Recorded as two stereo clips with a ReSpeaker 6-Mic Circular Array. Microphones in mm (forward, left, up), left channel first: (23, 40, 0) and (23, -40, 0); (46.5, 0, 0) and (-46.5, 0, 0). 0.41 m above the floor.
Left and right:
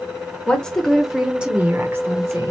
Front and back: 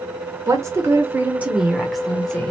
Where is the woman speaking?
160° left, 1.0 m; by 2.5 s 70° right, 1.0 m.